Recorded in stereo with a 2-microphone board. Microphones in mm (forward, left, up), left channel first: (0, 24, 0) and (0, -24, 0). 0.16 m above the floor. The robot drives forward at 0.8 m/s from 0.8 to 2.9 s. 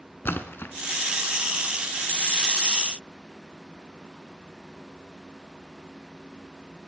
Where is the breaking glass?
No breaking glass in this recording.